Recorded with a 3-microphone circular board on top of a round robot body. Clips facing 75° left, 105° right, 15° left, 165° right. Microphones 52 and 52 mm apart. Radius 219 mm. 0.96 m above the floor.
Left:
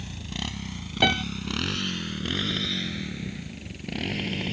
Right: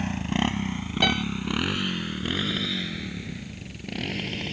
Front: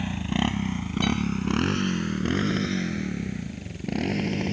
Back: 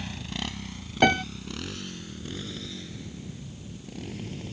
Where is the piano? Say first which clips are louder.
Left 1 dB, back 6 dB; 155° left.